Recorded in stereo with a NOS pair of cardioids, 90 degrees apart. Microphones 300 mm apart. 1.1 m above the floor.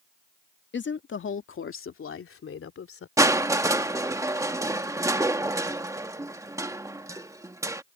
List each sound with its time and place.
0.7 s a woman speaking: 40° left; by 3.1 s 45° left
3.2 s crushing: 10° right